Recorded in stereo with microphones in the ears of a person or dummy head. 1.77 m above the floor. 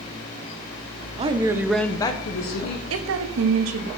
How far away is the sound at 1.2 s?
About 0.9 m.